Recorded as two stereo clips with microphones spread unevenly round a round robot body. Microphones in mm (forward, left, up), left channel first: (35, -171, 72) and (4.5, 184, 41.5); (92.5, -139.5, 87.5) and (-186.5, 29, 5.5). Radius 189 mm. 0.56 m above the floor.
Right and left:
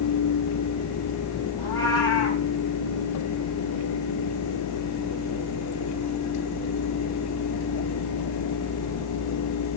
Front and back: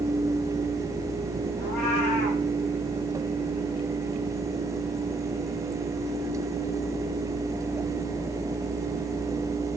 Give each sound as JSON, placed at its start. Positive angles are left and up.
{"t": 1.6, "sound": "a cat meowing", "azimuth_deg": -5, "distance_m": 9.5}